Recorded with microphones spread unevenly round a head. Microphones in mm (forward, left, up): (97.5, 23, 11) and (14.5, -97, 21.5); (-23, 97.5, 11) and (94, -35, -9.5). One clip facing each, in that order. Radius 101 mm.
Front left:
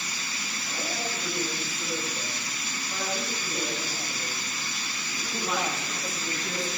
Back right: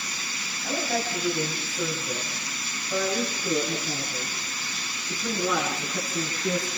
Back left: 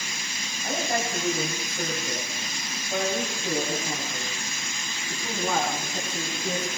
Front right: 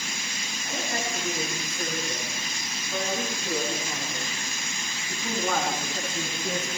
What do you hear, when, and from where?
0.6 s a man speaking: 170° right, 8.5 m; by 6.7 s 140° right, 11.5 m